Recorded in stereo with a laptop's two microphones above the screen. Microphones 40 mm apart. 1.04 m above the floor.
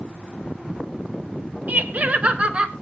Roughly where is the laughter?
Right.